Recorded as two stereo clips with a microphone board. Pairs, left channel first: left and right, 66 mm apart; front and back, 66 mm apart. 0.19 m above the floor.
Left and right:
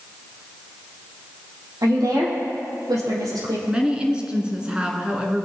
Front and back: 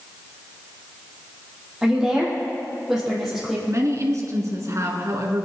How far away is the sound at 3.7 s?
About 2.5 m.